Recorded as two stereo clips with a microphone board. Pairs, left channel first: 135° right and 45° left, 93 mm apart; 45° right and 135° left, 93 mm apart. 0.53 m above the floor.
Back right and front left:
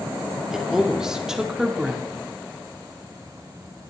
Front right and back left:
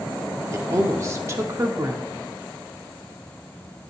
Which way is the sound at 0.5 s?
125° left.